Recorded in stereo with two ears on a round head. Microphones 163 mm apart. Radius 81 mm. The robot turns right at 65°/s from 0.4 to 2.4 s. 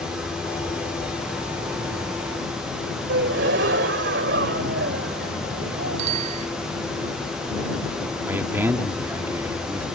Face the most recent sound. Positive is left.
turn(degrees=-15)  # may be behind; listen again after turning